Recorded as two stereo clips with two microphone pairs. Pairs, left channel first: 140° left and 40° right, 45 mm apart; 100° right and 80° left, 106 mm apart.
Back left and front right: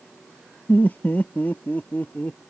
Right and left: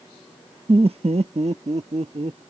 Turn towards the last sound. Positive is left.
turn(degrees=90)